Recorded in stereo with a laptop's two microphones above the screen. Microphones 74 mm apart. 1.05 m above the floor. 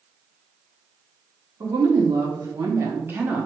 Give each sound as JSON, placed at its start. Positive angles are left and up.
{"t": 1.6, "sound": "a woman speaking", "side_deg": -65, "distance_m": 1.3}